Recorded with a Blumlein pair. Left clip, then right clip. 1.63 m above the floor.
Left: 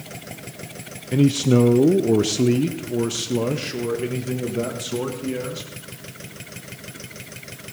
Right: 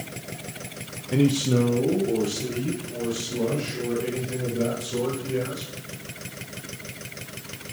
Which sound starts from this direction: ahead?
A man speaking, at 1.1 s.